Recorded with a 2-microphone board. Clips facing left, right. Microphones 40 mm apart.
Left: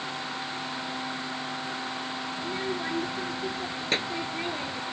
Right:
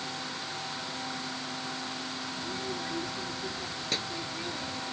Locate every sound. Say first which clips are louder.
2.4 s a child speaking: left 5 dB; 40° left (ahead or behind)